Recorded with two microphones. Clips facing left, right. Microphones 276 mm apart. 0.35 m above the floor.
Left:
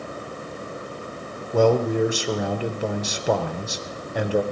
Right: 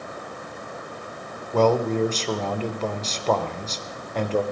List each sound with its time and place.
1.5 s a man speaking: 10° left (ahead or behind), 0.8 m